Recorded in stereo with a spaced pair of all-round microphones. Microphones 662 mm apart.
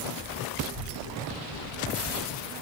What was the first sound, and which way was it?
A child speaking, 20° left (ahead or behind).